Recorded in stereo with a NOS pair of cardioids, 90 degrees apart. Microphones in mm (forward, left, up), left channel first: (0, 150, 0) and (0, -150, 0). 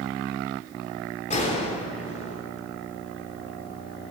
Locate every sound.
1.3 s a gunshot: 25° left, 3 m